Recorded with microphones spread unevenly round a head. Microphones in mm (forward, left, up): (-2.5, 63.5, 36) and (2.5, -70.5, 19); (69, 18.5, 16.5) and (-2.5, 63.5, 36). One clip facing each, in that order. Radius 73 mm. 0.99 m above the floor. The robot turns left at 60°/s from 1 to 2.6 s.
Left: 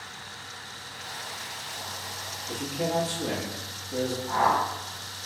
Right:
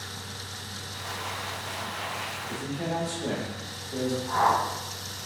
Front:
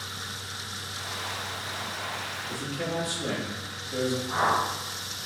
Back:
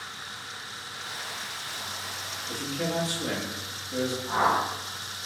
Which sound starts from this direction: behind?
A whoosh, at 4.3 s.